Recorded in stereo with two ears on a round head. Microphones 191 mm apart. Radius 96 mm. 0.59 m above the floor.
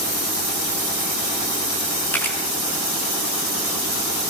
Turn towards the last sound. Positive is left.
turn(degrees=10)  # may be behind; listen again after turning